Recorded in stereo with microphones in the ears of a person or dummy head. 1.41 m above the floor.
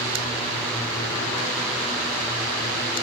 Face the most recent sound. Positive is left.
No sound to turn to.